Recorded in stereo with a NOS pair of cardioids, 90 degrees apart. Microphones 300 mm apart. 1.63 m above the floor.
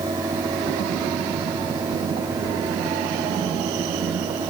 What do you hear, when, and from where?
0.0 s a fan: 15° right